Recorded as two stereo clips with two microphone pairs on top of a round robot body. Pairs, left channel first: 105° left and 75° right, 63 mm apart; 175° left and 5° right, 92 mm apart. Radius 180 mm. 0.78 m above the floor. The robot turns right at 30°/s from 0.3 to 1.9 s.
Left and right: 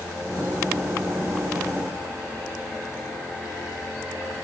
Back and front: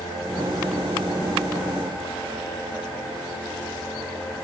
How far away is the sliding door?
No sliding door in this recording.